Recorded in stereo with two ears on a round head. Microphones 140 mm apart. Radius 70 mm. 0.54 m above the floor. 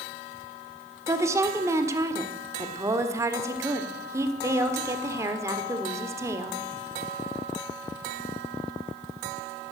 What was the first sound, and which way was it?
A woman speaking, 20° right (ahead or behind).